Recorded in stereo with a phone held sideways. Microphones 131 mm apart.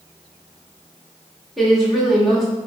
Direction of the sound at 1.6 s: Centre (ahead or behind).